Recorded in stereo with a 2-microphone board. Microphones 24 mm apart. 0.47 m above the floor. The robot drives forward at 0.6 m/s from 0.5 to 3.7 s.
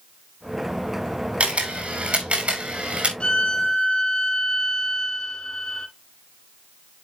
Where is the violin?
55° left (ahead or behind), 1.8 m; by 5.9 s 50° left (ahead or behind), 2.0 m.